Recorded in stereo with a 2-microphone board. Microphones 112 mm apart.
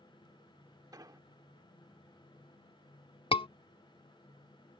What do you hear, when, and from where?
0.9 s an explosion: 35° right (ahead or behind)
3.3 s a scream: 50° left (ahead or behind)